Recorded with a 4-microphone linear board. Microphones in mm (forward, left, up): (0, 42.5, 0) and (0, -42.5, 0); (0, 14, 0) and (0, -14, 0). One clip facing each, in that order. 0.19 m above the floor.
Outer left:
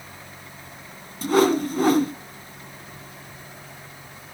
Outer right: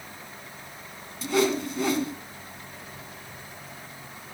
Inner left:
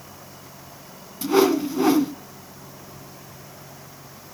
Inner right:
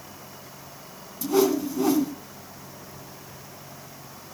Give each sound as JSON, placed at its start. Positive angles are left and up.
{"t": 1.2, "sound": "a whoosh", "side_deg": 50, "distance_m": 1.1}